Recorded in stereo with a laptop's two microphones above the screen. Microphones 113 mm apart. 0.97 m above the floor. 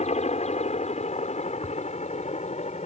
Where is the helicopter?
65° left (ahead or behind); by 2.9 s 70° left (ahead or behind).